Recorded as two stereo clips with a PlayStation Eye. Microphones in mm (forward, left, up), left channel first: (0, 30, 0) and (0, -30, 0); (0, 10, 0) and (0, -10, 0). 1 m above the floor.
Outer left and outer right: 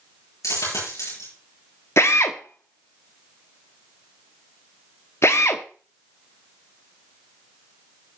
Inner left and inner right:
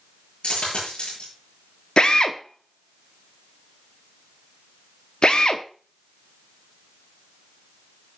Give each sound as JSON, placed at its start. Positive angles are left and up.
{"t": 0.4, "sound": "a dropped coin", "side_deg": 85, "distance_m": 8.0}
{"t": 2.0, "sound": "a drill", "side_deg": 55, "distance_m": 0.9}